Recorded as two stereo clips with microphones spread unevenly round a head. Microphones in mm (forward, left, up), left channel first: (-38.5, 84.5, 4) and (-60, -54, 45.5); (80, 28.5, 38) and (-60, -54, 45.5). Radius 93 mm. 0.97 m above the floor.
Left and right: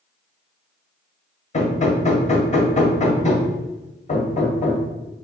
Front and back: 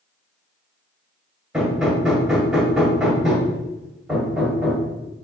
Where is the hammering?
125° left, 1.6 m.